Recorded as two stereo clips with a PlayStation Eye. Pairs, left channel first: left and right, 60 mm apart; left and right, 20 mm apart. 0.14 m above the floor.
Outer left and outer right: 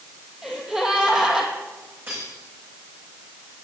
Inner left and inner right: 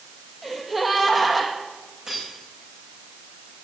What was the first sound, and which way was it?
A gasp, 10° right (ahead or behind).